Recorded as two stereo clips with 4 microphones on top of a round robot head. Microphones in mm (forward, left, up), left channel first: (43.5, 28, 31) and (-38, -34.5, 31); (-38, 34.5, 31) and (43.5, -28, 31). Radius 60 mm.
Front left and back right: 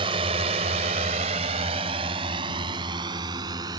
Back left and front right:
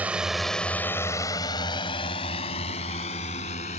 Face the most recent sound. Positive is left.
turn(degrees=165)